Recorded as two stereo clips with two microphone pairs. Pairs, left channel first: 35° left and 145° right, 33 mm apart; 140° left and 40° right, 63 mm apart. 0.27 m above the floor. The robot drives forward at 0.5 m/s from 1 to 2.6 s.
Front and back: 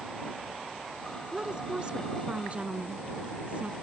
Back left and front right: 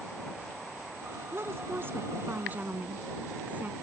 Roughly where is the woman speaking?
Right.